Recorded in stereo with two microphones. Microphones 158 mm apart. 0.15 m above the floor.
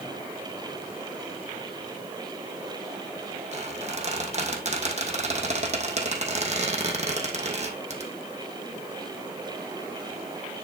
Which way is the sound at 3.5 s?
45° right (ahead or behind).